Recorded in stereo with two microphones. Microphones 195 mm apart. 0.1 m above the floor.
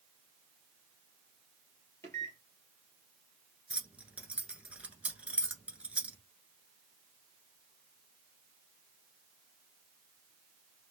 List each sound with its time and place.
2.0 s a microwave: 15° left (ahead or behind), 2 m
3.7 s keys jangling: 5° right (ahead or behind), 1.1 m